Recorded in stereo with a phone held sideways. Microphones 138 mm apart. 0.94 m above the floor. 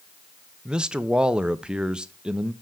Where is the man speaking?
5° right (ahead or behind), 0.5 m.